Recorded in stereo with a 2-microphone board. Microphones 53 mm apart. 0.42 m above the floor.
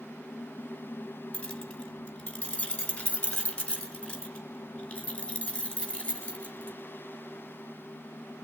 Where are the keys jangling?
20° left (ahead or behind), 2 m.